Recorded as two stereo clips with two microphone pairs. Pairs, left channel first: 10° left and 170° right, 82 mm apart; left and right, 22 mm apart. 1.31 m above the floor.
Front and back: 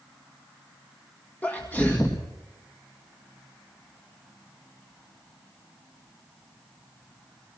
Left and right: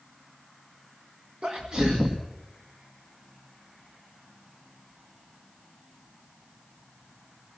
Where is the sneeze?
55° right, 1.9 m.